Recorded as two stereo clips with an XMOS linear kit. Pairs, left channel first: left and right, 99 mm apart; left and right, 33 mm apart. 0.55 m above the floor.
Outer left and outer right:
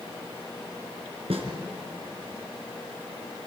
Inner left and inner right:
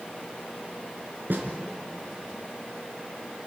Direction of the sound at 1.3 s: 75° right (ahead or behind).